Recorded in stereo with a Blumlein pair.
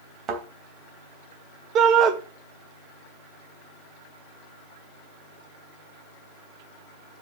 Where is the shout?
30° right, 1.6 m.